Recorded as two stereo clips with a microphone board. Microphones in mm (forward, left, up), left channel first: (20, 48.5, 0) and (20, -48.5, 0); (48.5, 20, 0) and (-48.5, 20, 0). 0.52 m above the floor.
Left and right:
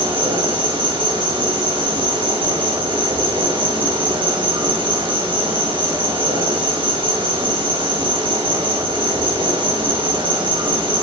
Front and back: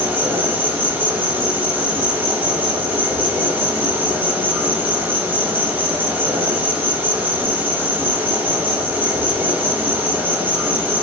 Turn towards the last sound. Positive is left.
turn(degrees=-110)